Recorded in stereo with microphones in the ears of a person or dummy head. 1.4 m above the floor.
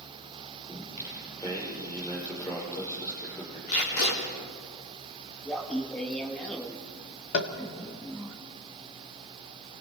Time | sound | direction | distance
0.7 | singing | 20° left (ahead or behind) | 6 m
3.7 | tape being pulled | 85° left | 4 m
5.5 | laughter | 10° left (ahead or behind) | 3 m
7.3 | tapping | 65° left (ahead or behind) | 1.6 m